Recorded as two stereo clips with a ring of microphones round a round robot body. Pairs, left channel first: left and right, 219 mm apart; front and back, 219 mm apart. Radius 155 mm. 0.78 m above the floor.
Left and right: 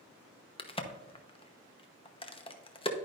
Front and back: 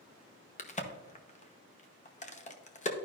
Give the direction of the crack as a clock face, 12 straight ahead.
11 o'clock.